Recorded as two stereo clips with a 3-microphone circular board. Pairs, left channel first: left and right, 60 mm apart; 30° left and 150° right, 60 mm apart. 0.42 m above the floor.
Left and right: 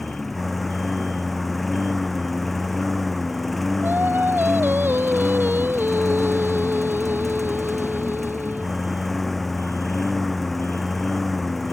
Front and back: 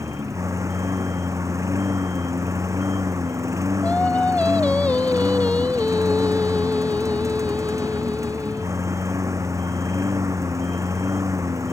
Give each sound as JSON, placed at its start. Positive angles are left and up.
{"t": 0.0, "sound": "a lawn mower", "azimuth_deg": 175}
{"t": 3.8, "sound": "singing", "azimuth_deg": -35}